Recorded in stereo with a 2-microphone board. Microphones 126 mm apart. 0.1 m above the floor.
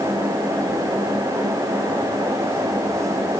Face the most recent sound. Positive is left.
No sound to turn to.